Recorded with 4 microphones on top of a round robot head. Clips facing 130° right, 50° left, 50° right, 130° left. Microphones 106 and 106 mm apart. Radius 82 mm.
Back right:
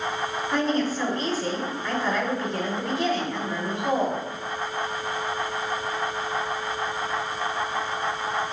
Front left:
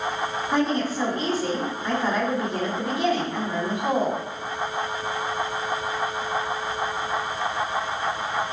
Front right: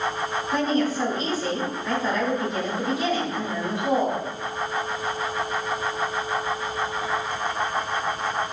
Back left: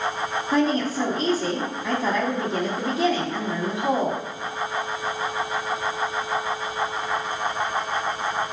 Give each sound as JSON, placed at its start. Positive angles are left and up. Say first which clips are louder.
{"t": 0.5, "sound": "a woman speaking", "louder": "front left 1 dB, back left 2 dB", "azimuth_deg": 130, "distance_m": 2.5}